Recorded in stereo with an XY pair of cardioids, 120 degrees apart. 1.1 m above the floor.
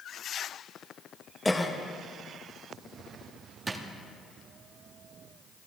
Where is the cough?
10° left, 1.0 m.